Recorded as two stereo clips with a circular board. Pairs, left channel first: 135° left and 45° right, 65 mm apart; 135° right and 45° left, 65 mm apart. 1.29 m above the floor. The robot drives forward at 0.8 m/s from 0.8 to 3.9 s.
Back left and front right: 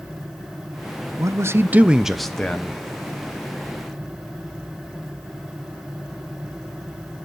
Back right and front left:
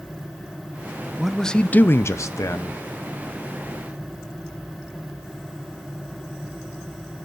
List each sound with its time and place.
1.2 s a man speaking: 40° right, 0.7 m; by 2.8 s 155° right, 1.0 m